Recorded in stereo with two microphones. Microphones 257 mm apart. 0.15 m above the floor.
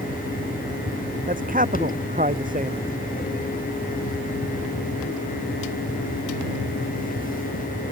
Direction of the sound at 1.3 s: 35° right (ahead or behind).